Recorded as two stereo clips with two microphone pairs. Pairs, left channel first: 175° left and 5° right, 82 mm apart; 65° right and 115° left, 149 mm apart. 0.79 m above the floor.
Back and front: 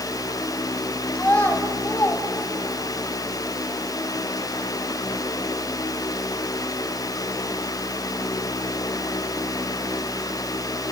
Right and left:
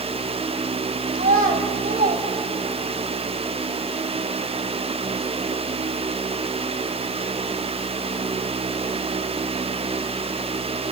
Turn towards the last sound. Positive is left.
turn(degrees=145)